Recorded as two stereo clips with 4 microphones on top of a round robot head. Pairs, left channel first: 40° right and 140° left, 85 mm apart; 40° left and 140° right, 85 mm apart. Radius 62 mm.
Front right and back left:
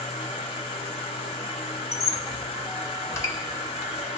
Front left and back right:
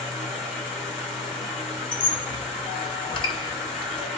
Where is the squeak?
20° left, 0.9 m.